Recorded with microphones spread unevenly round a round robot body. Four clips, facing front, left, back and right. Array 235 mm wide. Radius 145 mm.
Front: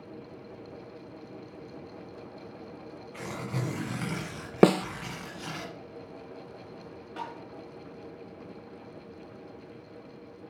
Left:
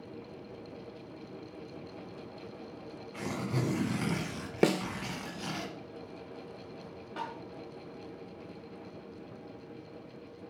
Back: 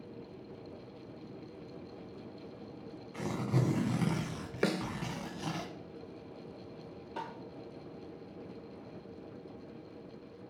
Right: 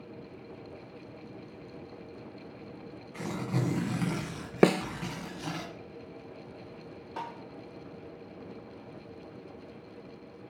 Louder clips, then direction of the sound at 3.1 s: Right 1 dB, back 2 dB; 175° right.